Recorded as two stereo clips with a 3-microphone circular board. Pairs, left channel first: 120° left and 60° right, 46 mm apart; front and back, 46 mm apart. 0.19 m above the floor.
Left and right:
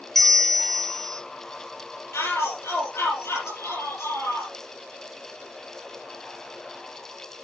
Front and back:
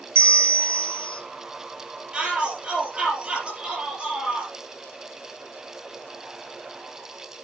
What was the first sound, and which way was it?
A bell, 155° right.